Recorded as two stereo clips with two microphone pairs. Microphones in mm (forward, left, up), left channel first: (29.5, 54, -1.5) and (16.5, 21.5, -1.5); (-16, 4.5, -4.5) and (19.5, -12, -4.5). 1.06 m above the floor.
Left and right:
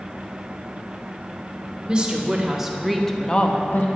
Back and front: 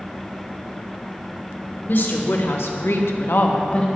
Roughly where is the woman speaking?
Behind.